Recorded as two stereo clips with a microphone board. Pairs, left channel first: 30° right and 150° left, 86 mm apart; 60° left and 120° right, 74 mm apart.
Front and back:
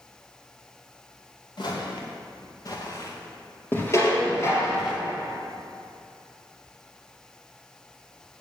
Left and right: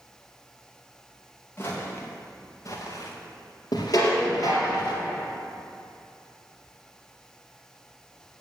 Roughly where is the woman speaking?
I don't hear a woman speaking.